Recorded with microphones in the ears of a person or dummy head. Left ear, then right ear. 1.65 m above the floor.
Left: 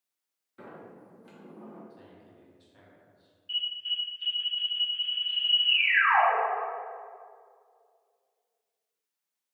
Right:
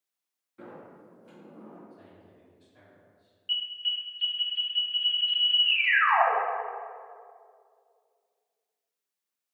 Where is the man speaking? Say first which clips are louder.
Even; 30° left (ahead or behind), 1.9 m.